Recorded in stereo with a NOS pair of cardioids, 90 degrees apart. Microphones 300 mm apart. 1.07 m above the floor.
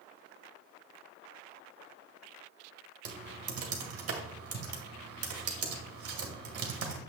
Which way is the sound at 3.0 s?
55° right.